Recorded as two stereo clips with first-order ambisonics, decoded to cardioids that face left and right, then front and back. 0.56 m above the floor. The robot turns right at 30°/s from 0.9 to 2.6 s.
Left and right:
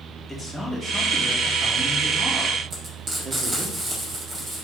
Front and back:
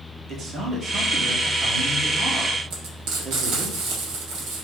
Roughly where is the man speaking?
Behind.